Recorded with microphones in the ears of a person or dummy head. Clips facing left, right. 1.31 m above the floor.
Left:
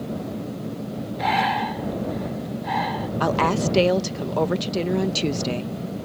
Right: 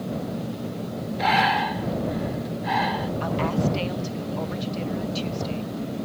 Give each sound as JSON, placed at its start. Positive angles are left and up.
{"t": 1.2, "sound": "breathing", "side_deg": -5}
{"t": 3.2, "sound": "a woman speaking", "side_deg": 70}